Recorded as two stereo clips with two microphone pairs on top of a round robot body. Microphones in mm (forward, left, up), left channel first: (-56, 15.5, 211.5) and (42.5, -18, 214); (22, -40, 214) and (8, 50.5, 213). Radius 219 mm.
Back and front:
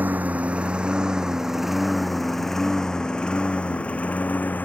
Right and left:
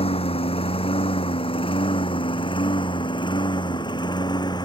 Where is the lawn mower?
95° right; by 4.7 s 125° right.